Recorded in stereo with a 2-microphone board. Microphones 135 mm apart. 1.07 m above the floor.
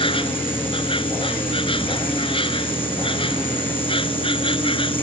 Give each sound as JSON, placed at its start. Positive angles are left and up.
{"t": 0.0, "sound": "an insect", "side_deg": 40}